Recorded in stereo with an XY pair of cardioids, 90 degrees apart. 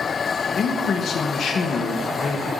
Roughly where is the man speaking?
Left.